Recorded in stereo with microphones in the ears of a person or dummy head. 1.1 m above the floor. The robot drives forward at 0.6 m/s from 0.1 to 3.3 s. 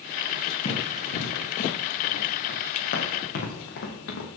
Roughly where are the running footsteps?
Left.